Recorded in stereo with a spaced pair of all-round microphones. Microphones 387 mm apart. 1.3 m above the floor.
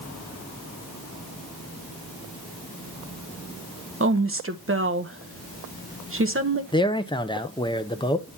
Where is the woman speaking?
35° right (ahead or behind), 1.0 m.